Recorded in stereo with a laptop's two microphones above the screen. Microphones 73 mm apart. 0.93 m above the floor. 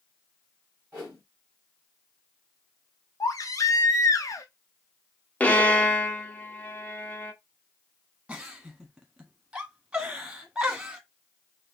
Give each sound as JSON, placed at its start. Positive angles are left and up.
{"t": 0.9, "sound": "a whoosh", "side_deg": -15, "distance_m": 2.0}
{"t": 3.2, "sound": "a baby crying", "side_deg": 50, "distance_m": 0.5}
{"t": 5.4, "sound": "a violin", "side_deg": 20, "distance_m": 0.7}
{"t": 8.3, "sound": "a giggle", "side_deg": -10, "distance_m": 1.0}